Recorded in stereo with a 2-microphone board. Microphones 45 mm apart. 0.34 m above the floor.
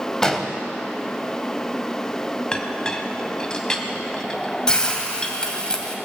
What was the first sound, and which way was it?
An explosion, 10° left (ahead or behind).